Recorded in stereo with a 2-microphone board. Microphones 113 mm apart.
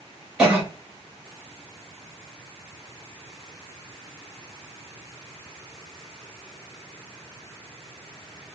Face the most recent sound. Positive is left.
turn(degrees=-10)  # may be behind; listen again after turning